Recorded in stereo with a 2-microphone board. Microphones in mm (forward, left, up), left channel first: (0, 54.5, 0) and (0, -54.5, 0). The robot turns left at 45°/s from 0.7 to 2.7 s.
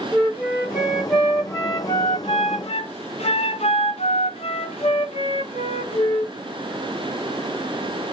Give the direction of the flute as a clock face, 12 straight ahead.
5 o'clock.